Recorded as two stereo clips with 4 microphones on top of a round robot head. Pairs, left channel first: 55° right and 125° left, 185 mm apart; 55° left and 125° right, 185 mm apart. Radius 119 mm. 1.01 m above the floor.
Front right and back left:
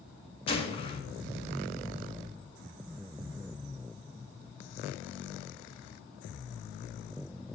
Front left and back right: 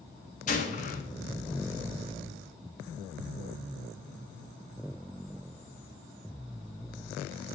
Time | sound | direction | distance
0.5 | a gunshot | 5° left | 1.8 m